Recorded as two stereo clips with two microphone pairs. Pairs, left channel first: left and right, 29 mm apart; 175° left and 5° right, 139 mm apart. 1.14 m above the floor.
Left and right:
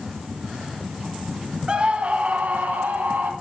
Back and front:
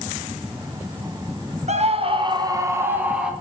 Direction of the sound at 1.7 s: 35° right.